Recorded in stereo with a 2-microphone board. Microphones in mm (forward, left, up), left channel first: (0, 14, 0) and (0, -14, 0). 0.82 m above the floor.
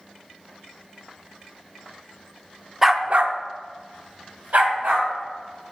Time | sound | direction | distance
2.8 | a dog barking | 5° right (ahead or behind) | 0.6 m